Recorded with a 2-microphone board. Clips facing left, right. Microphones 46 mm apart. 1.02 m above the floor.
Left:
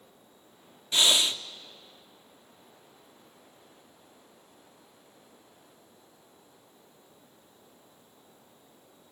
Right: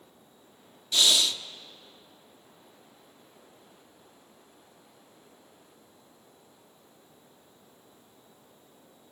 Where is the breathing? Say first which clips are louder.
Even; 30° left (ahead or behind), 0.6 m.